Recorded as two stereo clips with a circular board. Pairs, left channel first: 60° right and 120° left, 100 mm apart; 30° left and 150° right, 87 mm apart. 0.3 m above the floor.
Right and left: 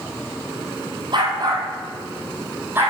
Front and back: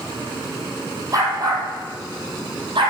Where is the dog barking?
160° left, 2.5 m; by 2.9 s 170° right, 3 m.